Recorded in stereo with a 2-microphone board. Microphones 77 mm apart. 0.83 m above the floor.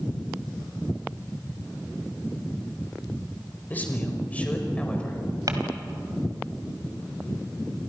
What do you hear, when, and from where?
3.7 s a man speaking: 20° left (ahead or behind), 4.5 m; by 5.2 s 15° left (ahead or behind), 5 m
5.5 s crumpling: 50° right (ahead or behind), 3 m